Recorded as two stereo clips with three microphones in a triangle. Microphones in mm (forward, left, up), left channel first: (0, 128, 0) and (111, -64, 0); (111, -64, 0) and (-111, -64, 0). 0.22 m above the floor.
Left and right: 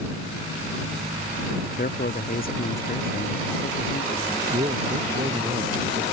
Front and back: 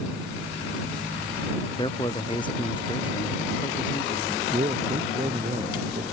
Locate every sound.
1.8 s a man speaking: 70° left
4.5 s a man speaking: 120° right